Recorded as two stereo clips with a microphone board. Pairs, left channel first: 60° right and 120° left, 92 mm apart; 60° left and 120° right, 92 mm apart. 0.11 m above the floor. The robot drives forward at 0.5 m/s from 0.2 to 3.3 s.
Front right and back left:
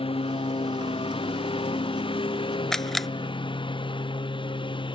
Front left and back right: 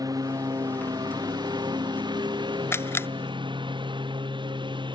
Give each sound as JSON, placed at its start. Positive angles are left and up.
{"t": 0.0, "sound": "a lawn mower", "azimuth_deg": -70}
{"t": 2.7, "sound": "a camera shutter", "azimuth_deg": 20}